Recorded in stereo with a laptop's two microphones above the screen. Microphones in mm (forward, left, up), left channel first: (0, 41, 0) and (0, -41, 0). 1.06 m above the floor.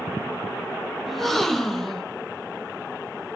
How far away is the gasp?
About 0.8 m.